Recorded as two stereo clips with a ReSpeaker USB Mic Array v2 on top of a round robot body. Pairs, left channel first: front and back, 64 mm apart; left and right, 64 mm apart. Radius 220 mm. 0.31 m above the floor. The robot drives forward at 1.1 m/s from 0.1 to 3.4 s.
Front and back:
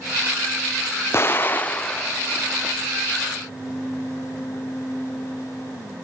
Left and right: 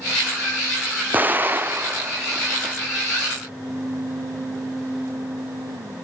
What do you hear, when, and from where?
1.1 s an explosion: 35° right, 2 m; by 2.8 s 120° right, 1.7 m